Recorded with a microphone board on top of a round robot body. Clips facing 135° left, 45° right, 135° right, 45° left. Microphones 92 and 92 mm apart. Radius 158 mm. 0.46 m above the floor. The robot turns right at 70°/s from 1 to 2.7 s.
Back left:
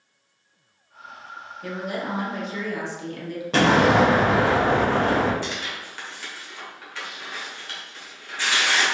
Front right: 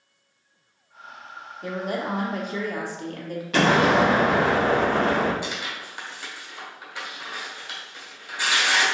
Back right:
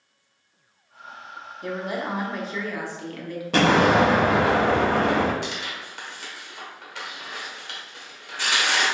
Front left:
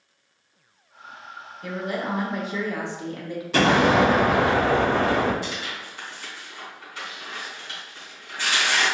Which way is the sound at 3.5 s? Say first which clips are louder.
Back left 1 dB, back right 1 dB; 170° right.